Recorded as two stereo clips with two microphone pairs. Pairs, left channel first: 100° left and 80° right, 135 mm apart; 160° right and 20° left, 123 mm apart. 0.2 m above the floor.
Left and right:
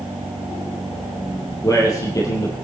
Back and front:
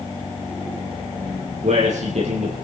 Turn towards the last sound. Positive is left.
turn(degrees=35)